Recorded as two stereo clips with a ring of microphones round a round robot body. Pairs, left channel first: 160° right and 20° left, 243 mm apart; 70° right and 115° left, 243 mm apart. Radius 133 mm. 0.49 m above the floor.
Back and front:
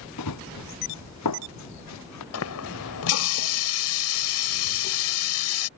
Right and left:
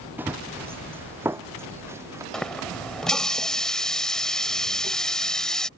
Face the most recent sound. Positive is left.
turn(degrees=-155)